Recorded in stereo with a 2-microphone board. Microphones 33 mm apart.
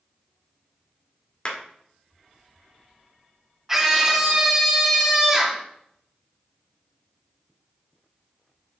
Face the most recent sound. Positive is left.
turn(degrees=-10)  # may be behind; listen again after turning